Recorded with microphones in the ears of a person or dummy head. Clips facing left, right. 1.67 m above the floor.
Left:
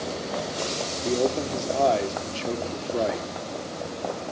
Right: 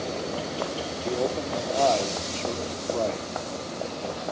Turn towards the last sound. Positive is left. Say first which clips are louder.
# left 3 dB
turn(degrees=25)  # may be behind; listen again after turning